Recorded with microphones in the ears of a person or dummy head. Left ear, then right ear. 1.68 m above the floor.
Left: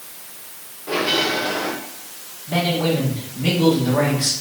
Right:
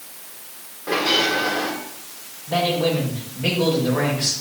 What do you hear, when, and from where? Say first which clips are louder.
0.9 s a bell: right 1 dB; 45° right (ahead or behind), 4 m
2.5 s a man speaking: even; 15° right (ahead or behind), 6.5 m